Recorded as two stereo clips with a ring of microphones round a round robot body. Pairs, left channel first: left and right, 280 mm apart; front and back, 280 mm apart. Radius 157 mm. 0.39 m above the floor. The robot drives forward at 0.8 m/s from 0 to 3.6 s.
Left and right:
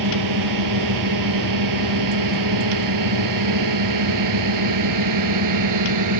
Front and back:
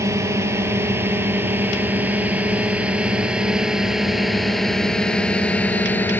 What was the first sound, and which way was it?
A drone, 100° right.